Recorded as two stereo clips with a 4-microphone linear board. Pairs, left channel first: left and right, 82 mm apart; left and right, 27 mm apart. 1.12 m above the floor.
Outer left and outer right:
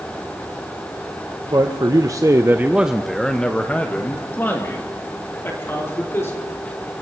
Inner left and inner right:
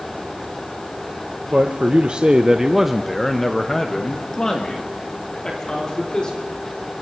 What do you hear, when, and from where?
1.5 s a man speaking: 50° right (ahead or behind), 1.3 m; by 6.4 s 30° left (ahead or behind), 4 m